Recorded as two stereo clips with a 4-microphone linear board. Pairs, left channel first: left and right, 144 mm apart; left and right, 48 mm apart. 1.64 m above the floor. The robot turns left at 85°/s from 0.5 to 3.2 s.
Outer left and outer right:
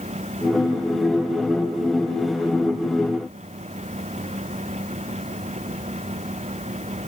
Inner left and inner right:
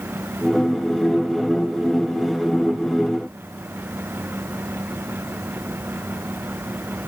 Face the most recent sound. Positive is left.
No sound to turn to.